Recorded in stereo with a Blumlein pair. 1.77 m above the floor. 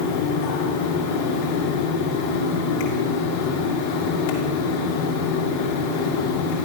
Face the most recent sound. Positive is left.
turn(degrees=50)